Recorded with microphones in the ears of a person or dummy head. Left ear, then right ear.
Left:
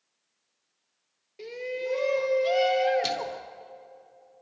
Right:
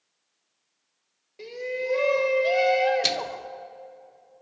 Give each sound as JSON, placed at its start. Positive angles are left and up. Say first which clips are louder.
{"t": 1.4, "sound": "a shout", "louder": "right 2 dB", "side_deg": 10, "distance_m": 1.5}
{"t": 3.0, "sound": "a microwave", "louder": "right 4 dB", "side_deg": -15, "distance_m": 0.6}